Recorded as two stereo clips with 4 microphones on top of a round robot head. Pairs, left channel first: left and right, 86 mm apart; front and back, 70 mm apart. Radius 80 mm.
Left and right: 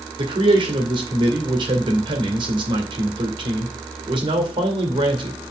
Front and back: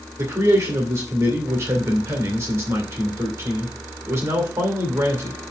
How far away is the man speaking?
About 2 m.